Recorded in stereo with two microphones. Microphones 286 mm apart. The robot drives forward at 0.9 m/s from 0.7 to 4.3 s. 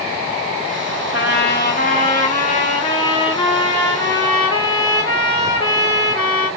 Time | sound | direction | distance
1.1 | a trumpet | 40° left (ahead or behind) | 1.4 m